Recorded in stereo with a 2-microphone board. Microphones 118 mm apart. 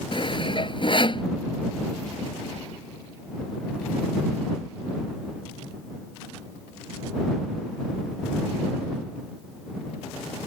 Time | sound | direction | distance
0.1 | sawing | 45° left (ahead or behind) | ?